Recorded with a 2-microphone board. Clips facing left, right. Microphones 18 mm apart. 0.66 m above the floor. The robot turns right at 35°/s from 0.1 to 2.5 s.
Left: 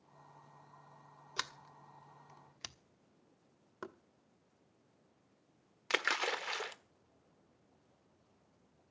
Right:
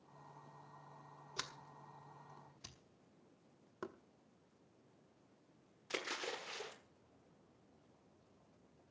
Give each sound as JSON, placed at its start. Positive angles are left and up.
{"t": 1.4, "sound": "a sliding door", "side_deg": 35, "distance_m": 1.1}
{"t": 3.8, "sound": "knocking", "side_deg": 15, "distance_m": 0.9}
{"t": 5.9, "sound": "a splash", "side_deg": 75, "distance_m": 1.3}